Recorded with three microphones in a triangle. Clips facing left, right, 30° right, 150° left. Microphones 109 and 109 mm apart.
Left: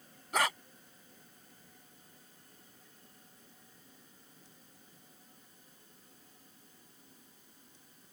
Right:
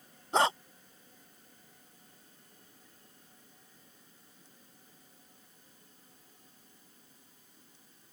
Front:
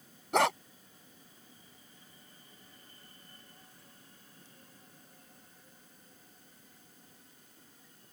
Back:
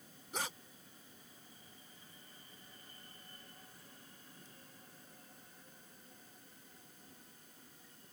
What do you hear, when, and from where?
0.3 s a dog barking: 30° right